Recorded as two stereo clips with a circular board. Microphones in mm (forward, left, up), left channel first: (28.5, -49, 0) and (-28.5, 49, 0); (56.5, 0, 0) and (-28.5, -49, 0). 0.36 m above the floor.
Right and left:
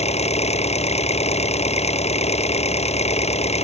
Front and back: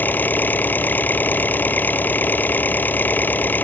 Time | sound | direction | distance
0.0 | an engine running | 40° right | ?